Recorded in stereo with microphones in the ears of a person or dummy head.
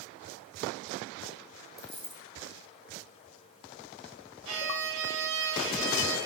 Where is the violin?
75° right (ahead or behind), 4.5 m.